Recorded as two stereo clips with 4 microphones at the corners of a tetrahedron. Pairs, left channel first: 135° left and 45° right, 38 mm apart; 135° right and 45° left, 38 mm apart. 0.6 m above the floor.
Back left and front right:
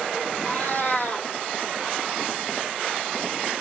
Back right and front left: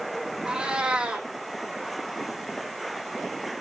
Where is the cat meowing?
115° left, 3 m.